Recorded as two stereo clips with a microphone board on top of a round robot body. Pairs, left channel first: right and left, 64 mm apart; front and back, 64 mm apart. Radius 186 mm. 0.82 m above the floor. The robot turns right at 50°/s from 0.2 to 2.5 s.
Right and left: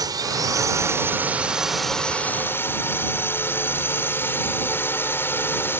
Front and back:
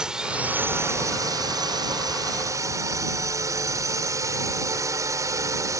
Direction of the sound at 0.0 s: 100° left.